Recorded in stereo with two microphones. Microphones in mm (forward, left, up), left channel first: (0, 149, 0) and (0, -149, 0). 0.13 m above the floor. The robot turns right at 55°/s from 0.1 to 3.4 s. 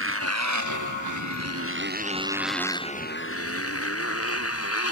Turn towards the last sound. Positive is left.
turn(degrees=50)  # may be behind; listen again after turning